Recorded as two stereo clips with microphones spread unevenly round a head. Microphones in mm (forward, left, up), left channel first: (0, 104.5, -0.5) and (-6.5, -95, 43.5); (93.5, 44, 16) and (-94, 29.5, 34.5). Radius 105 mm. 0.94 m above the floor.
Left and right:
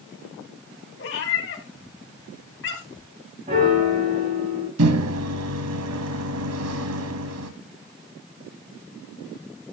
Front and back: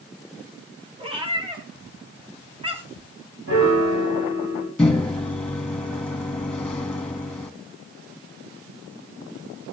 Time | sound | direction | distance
1.0 | a cat meowing | 125° left | 3 m
3.5 | a piano | 145° right | 8 m
4.8 | a microwave | 80° right | 1.4 m